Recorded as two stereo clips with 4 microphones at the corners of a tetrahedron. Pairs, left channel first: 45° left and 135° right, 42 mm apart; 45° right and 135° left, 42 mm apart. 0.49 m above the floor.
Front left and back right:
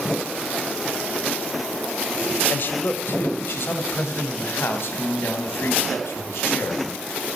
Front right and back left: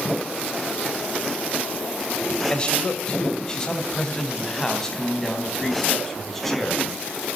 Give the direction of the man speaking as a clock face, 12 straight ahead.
11 o'clock.